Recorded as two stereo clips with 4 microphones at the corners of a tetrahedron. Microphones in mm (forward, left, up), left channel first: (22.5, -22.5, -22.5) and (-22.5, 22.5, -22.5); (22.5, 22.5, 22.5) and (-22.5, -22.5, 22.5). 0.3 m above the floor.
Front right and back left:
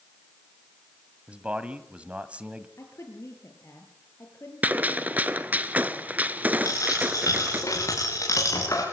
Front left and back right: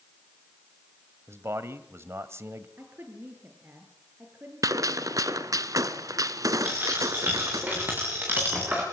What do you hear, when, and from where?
1.3 s a man speaking: 160° right, 1.5 m
2.8 s a woman speaking: 80° right, 5 m
4.6 s a gunshot: 160° right, 1.1 m
6.6 s a dropped coin: 75° right, 8 m